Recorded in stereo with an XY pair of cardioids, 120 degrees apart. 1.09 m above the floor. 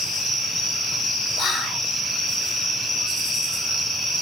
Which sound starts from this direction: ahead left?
Whispering, at 1.4 s.